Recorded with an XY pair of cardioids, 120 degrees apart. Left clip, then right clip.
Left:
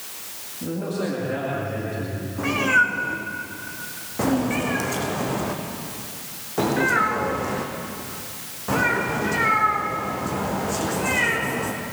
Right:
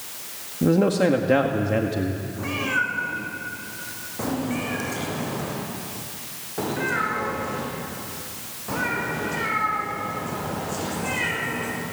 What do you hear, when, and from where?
0.6 s a man speaking: 65° right, 2 m
2.4 s a cat meowing: 30° left, 5 m